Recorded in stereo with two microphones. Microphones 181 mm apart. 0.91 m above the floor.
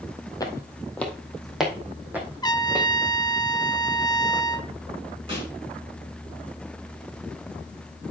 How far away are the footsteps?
About 1.8 m.